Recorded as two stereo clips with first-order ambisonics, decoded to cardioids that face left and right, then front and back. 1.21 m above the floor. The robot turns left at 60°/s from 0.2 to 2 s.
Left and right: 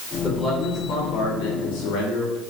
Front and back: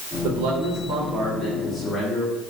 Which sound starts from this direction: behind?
A man speaking, at 0.2 s.